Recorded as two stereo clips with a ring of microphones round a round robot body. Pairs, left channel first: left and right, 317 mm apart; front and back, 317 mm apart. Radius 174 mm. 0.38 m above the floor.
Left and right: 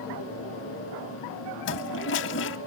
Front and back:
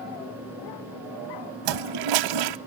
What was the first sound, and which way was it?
A toilet flushing, 150° left.